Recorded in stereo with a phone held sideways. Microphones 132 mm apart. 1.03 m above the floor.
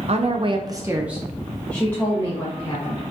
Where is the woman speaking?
55° right (ahead or behind), 0.5 m; by 3.1 s 25° left (ahead or behind), 1.3 m.